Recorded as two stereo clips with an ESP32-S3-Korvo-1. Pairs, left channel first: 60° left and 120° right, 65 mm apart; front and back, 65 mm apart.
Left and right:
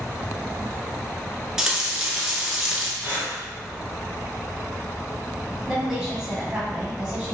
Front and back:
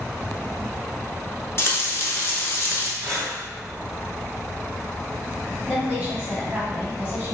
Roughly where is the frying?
Ahead right.